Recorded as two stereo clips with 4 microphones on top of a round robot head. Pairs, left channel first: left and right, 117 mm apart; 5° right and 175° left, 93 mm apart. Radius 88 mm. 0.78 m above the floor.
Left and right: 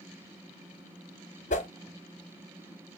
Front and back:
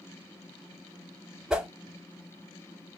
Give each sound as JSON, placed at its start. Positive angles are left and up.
{"t": 1.5, "sound": "a whoosh", "azimuth_deg": 90, "distance_m": 0.7}